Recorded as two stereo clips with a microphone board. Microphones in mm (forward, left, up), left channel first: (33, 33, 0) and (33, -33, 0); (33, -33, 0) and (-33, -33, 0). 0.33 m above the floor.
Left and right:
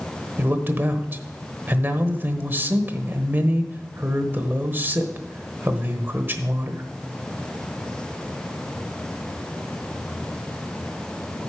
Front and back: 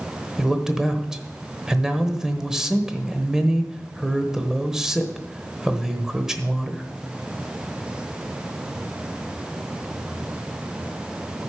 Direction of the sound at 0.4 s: 105° right.